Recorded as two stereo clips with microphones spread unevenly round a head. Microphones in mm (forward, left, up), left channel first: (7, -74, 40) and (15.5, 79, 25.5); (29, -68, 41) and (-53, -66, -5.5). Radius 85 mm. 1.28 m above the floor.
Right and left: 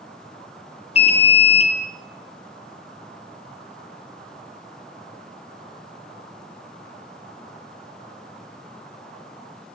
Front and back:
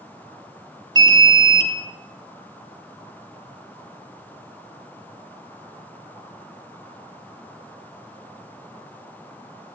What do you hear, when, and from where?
0.9 s an alarm: 145° right, 3 m